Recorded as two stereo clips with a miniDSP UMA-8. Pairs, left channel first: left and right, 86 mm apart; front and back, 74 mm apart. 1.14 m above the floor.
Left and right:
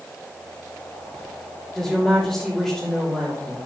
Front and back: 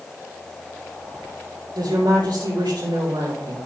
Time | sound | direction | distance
1.8 | a woman speaking | 175° right | 3 m